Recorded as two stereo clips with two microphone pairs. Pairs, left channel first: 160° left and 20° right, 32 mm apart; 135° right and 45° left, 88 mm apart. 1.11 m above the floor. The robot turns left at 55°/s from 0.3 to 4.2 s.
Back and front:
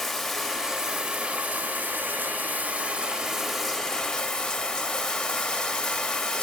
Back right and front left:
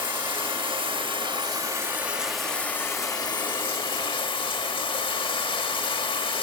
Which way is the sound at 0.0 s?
70° left.